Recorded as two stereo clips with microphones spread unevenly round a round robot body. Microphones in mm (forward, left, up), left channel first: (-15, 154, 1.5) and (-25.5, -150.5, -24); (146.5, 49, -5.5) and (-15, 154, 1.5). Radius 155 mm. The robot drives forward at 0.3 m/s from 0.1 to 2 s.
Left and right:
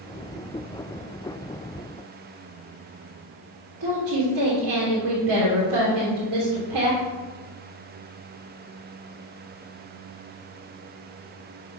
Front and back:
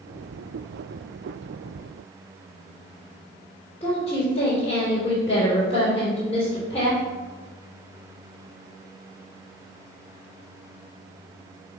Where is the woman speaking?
115° right, 2.5 m.